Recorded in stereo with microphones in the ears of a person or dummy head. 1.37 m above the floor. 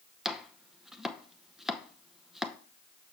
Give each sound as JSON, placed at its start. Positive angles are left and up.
{"t": 0.2, "sound": "chopping", "side_deg": 0, "distance_m": 0.6}